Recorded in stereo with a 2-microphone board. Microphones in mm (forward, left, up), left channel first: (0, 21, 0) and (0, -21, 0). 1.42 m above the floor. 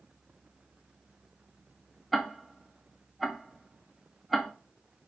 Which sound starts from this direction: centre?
Ticking, at 2.1 s.